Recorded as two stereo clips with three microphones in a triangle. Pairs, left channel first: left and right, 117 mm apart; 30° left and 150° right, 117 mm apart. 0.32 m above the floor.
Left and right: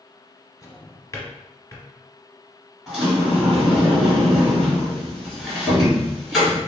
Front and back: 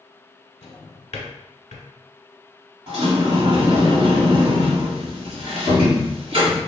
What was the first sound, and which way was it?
A drawer, 30° left.